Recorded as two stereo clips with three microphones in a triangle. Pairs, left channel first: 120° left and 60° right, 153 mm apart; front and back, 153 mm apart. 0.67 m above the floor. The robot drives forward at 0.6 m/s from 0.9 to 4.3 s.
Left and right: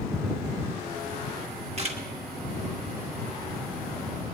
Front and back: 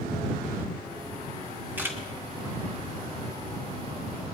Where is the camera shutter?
100° right, 1.3 m; by 2.0 s 110° right, 1.3 m.